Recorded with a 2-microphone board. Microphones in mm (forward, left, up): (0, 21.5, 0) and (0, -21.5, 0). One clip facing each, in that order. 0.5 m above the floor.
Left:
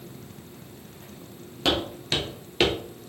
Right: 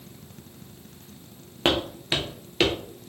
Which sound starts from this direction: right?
Footsteps, at 1.6 s.